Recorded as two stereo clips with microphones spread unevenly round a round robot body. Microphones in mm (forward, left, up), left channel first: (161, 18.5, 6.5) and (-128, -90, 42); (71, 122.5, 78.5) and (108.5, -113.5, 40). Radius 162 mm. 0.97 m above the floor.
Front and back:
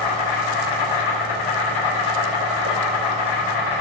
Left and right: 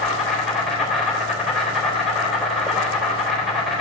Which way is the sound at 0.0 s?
10° left.